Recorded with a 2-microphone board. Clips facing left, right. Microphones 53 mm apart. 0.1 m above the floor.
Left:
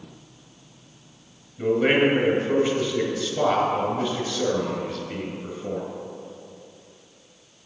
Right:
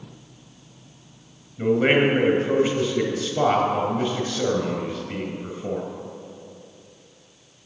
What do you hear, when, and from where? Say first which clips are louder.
1.6 s a man speaking: right 1 dB; 15° right (ahead or behind), 1.5 m